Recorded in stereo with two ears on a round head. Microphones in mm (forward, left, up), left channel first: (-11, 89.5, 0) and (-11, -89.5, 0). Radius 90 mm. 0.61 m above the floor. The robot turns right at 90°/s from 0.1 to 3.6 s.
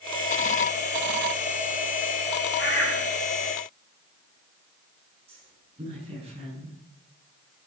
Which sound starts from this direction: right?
A woman speaking, at 5.3 s.